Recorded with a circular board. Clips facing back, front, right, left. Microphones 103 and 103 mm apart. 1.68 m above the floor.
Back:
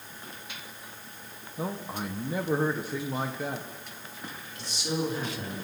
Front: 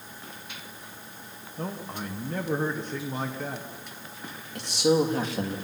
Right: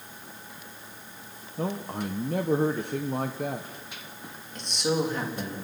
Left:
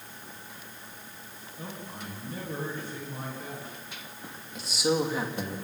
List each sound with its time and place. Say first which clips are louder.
1.6 s a man speaking: back 1 dB, right 10 dB; 100° right, 1.2 m
4.5 s a man speaking: front 10 dB, even; 5° left, 3 m